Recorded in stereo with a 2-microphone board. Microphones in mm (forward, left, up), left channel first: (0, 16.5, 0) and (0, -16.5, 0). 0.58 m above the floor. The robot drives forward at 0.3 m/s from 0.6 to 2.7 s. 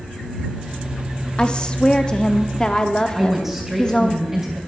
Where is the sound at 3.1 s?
5° right (ahead or behind), 3 m.